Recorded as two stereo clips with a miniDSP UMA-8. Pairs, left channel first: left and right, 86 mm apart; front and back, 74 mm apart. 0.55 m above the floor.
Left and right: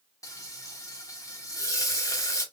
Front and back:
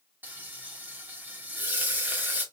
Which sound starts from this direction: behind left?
Frying, at 0.2 s.